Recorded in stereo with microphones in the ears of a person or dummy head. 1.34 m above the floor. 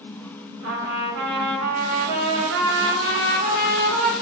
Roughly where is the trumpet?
Right.